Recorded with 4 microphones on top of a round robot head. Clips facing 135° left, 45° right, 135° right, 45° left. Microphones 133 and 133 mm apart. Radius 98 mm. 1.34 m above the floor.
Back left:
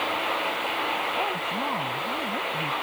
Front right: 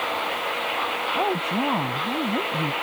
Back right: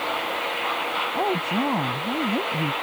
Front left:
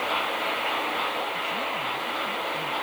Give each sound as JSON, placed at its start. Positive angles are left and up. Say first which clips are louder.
{"t": 1.1, "sound": "a woman speaking", "louder": "front right 5 dB, back right 7 dB", "azimuth_deg": -100}